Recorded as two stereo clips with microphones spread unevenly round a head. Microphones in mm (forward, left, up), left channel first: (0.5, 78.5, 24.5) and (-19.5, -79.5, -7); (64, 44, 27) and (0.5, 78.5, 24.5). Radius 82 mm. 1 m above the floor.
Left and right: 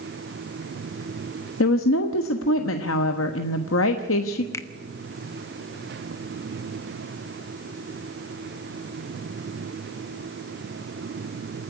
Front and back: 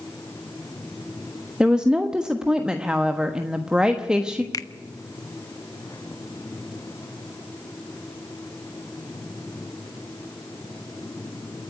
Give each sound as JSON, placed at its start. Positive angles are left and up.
{"t": 1.6, "sound": "a woman speaking", "azimuth_deg": 75, "distance_m": 1.3}
{"t": 4.5, "sound": "a finger snap", "azimuth_deg": 5, "distance_m": 1.0}